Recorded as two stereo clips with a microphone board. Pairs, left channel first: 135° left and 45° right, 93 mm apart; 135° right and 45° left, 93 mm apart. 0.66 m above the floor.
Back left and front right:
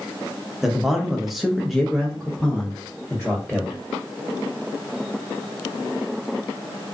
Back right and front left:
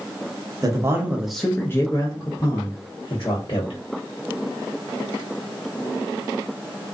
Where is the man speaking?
40° left, 0.6 m; by 3.8 s 140° right, 1.4 m.